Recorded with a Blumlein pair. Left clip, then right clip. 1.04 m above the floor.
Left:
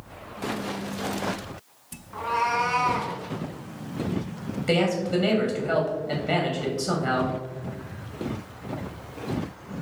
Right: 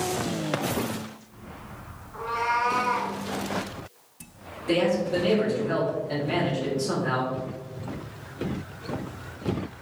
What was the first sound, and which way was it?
A cat meowing, 65° left.